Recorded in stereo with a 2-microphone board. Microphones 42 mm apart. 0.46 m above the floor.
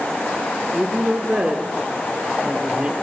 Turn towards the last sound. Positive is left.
turn(degrees=-25)  # may be behind; listen again after turning